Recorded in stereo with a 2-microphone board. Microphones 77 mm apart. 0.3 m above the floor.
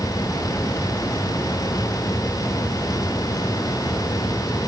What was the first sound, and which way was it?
Only background noise.